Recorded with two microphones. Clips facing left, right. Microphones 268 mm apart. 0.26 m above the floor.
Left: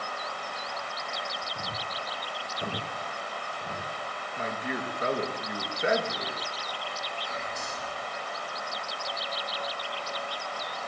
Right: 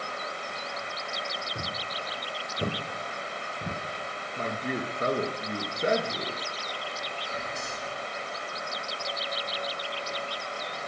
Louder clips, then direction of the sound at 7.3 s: Right 1 dB; 35° right (ahead or behind).